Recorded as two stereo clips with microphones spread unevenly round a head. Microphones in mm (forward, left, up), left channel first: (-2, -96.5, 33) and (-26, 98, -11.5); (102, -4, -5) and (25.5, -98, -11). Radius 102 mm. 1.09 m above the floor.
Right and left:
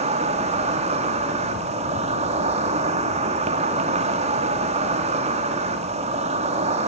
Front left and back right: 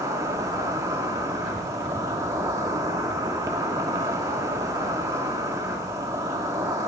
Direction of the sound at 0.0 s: 160° left.